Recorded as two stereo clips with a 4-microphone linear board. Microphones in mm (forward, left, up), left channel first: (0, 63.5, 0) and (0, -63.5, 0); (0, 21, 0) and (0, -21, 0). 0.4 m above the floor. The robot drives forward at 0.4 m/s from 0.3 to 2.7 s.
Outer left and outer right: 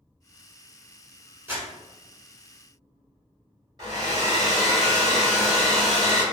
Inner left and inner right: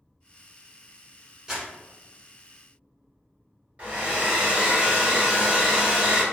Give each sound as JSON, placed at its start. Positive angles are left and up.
{"t": 1.5, "sound": "crumpling", "side_deg": -15, "distance_m": 1.4}
{"t": 3.8, "sound": "a hair dryer", "side_deg": -35, "distance_m": 1.4}